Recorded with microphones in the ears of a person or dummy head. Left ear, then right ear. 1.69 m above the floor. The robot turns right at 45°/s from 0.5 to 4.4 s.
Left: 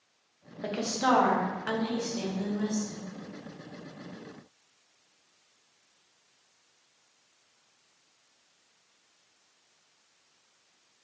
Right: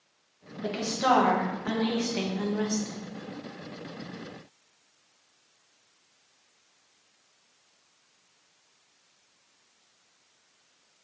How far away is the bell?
I don't hear a bell.